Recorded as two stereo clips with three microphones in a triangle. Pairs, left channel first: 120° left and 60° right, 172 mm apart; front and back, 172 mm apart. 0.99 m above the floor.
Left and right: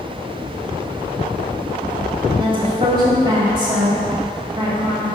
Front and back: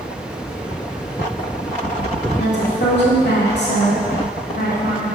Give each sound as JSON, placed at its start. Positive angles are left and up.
{"t": 2.4, "sound": "a woman speaking", "azimuth_deg": 5, "distance_m": 1.9}